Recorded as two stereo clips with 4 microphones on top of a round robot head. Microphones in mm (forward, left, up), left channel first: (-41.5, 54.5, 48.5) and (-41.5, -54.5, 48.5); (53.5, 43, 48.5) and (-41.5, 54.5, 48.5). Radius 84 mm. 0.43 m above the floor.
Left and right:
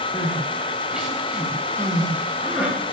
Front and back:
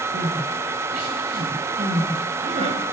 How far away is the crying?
About 8.5 m.